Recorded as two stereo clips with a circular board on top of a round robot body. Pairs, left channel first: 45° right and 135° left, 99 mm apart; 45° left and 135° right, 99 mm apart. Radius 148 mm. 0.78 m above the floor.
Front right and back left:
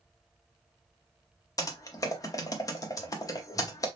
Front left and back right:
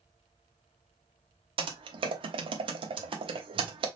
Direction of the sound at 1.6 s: 100° right.